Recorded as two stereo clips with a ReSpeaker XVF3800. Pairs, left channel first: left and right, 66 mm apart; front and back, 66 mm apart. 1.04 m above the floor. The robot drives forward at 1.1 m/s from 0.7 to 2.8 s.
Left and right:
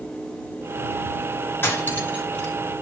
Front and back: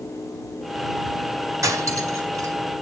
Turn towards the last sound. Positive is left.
turn(degrees=155)